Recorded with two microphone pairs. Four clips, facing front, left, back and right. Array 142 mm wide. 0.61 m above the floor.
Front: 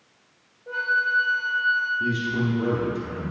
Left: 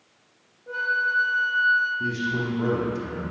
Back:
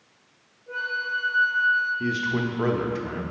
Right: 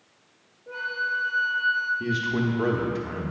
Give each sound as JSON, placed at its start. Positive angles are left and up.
{"t": 0.7, "sound": "a flute", "azimuth_deg": 20, "distance_m": 1.3}
{"t": 2.0, "sound": "a man speaking", "azimuth_deg": -145, "distance_m": 0.9}